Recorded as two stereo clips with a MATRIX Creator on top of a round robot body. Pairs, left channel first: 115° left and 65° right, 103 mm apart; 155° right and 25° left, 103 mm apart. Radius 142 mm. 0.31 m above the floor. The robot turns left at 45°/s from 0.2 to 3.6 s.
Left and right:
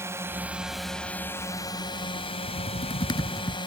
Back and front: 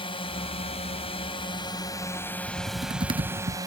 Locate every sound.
0.0 s a drone: 130° right; by 3.7 s 75° left
2.5 s typing on a keyboard: 90° left; by 3.6 s 40° left